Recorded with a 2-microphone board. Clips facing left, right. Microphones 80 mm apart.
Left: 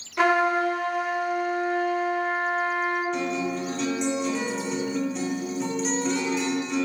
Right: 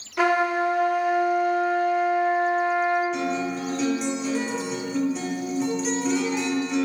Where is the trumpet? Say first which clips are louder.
Even; 5° right (ahead or behind), 1.1 m.